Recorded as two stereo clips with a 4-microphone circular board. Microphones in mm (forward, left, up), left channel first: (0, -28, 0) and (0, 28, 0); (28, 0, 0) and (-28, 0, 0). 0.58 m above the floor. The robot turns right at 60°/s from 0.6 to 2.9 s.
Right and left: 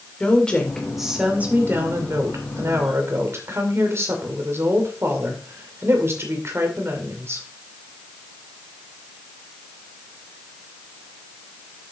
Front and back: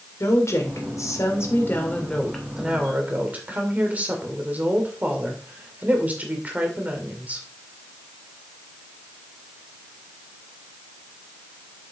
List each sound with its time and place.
0.2 s a woman speaking: 20° right, 2 m; by 7.5 s 120° left, 2 m